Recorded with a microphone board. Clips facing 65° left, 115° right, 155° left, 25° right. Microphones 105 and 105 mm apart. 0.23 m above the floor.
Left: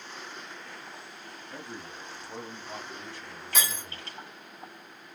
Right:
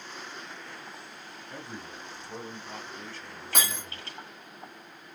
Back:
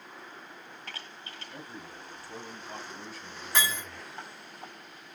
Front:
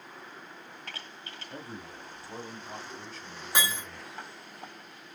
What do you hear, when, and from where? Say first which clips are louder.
1.5 s a man speaking: even, front 3 dB; 30° right, 1.5 m; by 4.2 s 120° left, 1.5 m
3.5 s breaking glass: right 1 dB, even; 95° right, 1.8 m